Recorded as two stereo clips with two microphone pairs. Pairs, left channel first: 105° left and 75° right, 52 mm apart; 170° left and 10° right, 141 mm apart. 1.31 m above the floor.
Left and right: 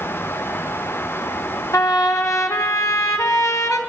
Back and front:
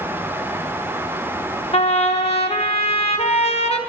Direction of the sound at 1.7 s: 125° left.